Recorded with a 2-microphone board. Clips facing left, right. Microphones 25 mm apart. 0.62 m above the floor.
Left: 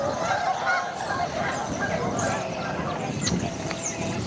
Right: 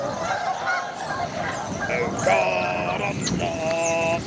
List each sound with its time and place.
1.9 s singing: 70° right (ahead or behind)